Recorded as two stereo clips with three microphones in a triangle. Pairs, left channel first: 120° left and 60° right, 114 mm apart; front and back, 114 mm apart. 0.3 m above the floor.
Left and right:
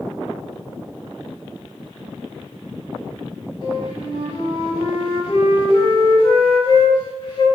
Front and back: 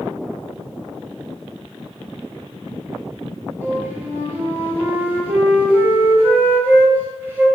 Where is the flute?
115° left, 1.1 m.